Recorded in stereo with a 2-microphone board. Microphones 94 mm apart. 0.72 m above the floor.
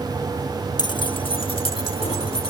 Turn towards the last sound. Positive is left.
turn(degrees=80)